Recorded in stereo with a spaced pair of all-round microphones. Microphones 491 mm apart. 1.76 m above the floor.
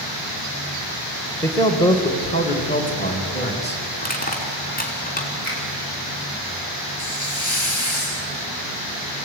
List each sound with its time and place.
1.4 s a man speaking: 5° left (ahead or behind), 2 m; by 3.8 s 20° left (ahead or behind), 4 m
4.0 s crushing: 15° left (ahead or behind), 4 m
5.4 s a finger snap: 85° left, 8 m
7.0 s a hiss: 65° left (ahead or behind), 2.5 m